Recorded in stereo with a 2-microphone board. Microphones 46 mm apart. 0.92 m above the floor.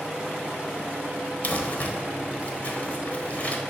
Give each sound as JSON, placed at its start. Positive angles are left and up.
{"t": 1.4, "sound": "crumpling", "side_deg": 40, "distance_m": 0.8}